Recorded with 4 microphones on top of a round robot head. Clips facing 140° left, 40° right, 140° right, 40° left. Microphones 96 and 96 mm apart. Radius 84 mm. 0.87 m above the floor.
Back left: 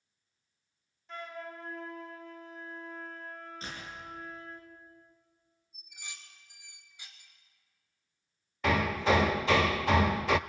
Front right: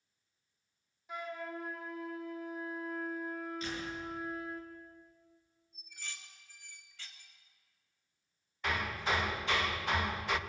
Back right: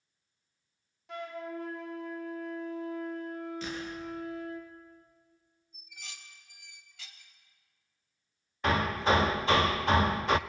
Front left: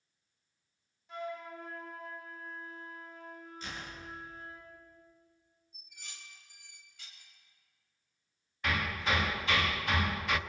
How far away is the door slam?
About 9.5 m.